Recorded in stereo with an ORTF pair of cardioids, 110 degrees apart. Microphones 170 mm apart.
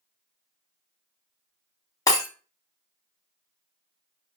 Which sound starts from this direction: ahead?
Breaking glass, at 2.1 s.